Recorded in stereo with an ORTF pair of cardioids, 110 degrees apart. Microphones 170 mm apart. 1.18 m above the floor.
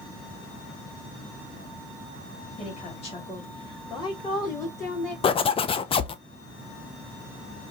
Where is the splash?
No splash in this recording.